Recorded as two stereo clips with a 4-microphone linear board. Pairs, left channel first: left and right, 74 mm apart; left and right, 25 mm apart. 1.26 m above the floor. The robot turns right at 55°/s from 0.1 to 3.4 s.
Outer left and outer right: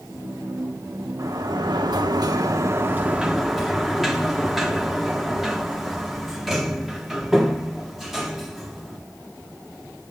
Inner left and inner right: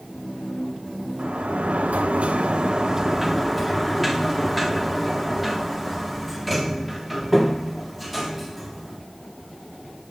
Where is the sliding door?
125° right, 1.4 m; by 9.0 s 5° right, 1.4 m.